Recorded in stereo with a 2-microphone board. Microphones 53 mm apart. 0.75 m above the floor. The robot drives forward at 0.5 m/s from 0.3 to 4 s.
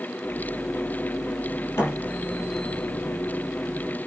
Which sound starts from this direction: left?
A thud, at 1.8 s.